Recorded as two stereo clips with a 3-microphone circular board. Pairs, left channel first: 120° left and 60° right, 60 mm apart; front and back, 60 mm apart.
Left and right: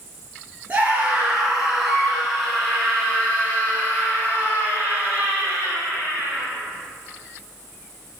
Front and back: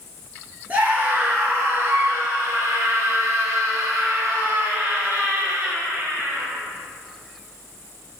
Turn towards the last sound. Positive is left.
turn(degrees=155)